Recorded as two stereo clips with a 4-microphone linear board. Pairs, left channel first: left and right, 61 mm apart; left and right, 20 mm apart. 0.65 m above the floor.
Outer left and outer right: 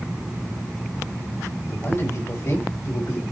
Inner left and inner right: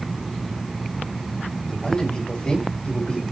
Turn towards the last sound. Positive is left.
turn(degrees=60)  # may be behind; listen again after turning